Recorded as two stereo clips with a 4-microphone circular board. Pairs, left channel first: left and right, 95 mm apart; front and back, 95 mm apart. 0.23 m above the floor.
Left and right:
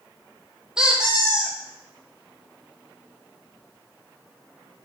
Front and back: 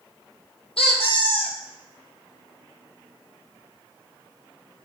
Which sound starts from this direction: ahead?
A squeak, at 0.8 s.